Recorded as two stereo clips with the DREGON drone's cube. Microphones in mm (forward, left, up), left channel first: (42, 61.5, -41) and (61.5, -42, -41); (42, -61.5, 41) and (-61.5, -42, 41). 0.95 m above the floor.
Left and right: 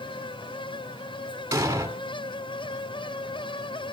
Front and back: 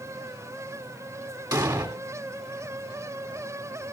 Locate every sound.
1.5 s an explosion: 140° right, 3 m